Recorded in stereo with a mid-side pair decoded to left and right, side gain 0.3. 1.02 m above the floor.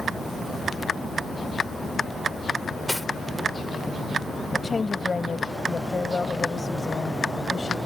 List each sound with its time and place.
2.9 s cutlery clinking: 10° left
4.5 s a woman speaking: 40° left